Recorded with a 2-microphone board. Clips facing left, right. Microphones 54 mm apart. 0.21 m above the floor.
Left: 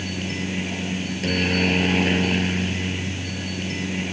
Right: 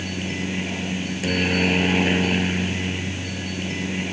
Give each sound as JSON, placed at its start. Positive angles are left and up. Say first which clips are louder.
{"t": 0.0, "sound": "a helicopter", "louder": "even", "side_deg": -5}